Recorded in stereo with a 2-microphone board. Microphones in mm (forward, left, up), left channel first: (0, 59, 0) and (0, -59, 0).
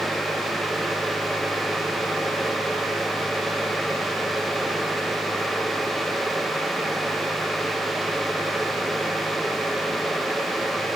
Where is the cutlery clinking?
I don't hear cutlery clinking.